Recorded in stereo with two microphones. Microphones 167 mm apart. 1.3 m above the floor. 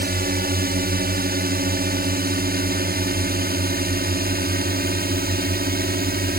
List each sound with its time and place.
0.0 s a drone: 65° right (ahead or behind)